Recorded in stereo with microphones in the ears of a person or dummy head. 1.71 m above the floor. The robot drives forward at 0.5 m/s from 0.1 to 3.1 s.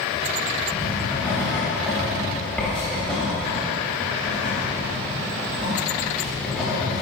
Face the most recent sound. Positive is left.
turn(degrees=5)  # may be behind; listen again after turning